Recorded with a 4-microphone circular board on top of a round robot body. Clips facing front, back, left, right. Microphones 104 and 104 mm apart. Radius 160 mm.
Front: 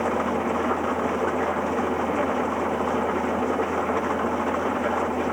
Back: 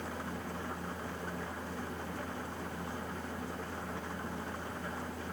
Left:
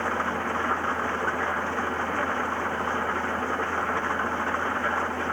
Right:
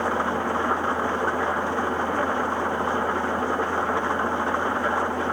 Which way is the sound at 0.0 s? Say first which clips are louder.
Front 17 dB, right 4 dB; 15° right.